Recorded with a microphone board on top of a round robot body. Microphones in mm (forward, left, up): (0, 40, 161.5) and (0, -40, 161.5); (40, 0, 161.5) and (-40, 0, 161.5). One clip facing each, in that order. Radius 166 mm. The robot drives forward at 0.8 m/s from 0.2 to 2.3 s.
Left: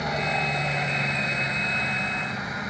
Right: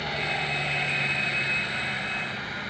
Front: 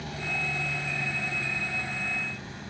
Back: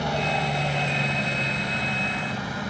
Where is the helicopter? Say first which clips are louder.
Left 4 dB, back 9 dB; 160° left.